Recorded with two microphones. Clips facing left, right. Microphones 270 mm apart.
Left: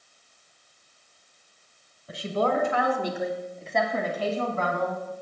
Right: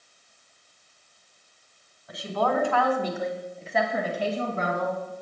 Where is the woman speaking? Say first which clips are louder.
Left 1 dB; 30° left (ahead or behind), 1.6 m; by 5.1 s 30° right (ahead or behind), 1.7 m.